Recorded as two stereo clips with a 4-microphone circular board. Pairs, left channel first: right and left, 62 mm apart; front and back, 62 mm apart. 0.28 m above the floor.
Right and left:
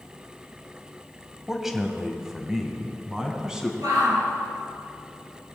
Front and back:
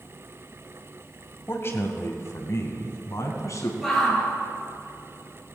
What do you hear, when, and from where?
1.5 s a man speaking: 5° left, 1.4 m; by 3.7 s 10° left, 2.5 m
3.8 s a shout: 90° left, 5 m